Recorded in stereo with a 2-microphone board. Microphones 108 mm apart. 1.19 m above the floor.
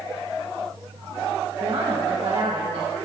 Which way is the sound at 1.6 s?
35° right (ahead or behind).